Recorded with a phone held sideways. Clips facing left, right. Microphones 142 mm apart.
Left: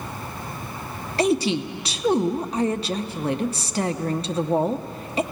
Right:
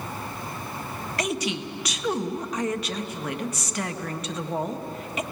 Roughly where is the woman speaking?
Left.